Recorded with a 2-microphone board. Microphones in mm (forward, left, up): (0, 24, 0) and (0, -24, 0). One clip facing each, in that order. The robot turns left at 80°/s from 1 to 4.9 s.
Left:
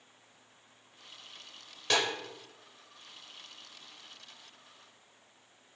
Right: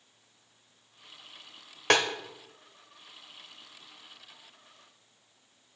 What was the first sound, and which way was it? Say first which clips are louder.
A snare drum: right 5 dB; 55° right (ahead or behind).